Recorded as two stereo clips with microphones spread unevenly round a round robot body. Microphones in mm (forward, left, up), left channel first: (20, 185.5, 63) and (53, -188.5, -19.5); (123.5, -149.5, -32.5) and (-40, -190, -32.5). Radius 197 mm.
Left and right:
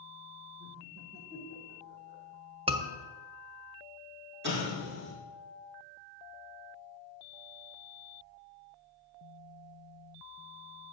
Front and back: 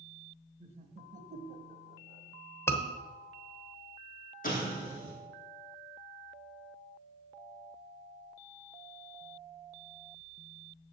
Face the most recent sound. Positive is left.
turn(degrees=-20)